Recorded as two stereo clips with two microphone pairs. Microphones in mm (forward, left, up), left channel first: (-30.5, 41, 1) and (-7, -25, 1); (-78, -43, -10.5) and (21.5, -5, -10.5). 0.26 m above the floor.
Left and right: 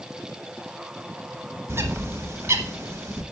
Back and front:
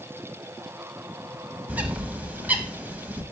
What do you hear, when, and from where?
1.7 s a bird: 50° right, 0.8 m